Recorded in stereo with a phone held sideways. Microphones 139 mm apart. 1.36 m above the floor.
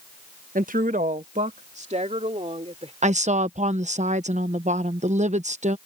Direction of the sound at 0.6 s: 80° right.